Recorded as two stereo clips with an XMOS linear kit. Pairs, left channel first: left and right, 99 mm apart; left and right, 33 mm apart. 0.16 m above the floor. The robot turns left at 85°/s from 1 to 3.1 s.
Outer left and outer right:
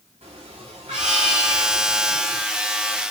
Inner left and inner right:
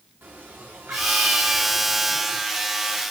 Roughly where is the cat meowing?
Right.